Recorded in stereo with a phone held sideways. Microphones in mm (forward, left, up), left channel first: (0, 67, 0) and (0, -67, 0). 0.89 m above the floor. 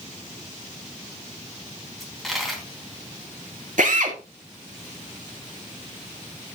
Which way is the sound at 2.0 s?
Centre (ahead or behind).